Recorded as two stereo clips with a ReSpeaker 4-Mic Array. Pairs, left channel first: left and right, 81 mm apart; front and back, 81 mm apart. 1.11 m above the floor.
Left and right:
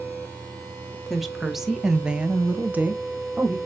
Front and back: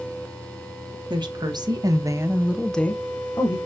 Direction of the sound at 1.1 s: Straight behind.